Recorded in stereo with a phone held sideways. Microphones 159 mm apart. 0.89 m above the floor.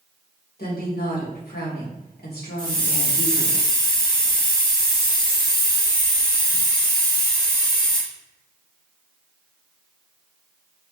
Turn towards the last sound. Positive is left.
turn(degrees=30)  # may be behind; listen again after turning